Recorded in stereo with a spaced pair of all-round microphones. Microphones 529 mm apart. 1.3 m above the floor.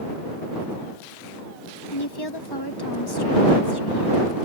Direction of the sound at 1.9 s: 45° left (ahead or behind).